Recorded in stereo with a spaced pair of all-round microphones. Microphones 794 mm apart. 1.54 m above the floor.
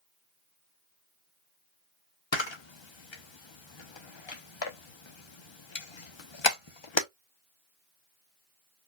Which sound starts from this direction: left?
A camera shutter, at 2.3 s.